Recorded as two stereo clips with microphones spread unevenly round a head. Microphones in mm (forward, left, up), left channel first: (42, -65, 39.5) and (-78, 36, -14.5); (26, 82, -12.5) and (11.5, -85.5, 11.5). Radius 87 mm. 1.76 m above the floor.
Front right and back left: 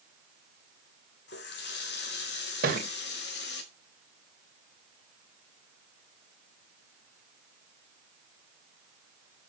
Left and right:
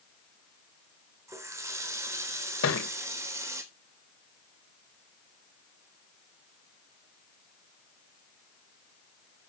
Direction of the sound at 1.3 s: 25° right.